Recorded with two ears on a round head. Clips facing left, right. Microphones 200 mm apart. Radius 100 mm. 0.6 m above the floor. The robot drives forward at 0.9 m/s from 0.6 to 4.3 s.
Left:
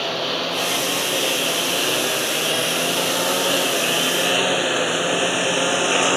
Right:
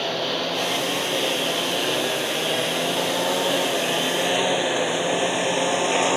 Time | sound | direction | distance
0.0 | a lawn mower | centre (ahead or behind) | ?